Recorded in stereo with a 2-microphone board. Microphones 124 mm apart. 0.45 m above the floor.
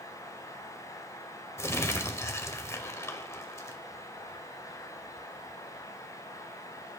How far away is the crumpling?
About 0.6 m.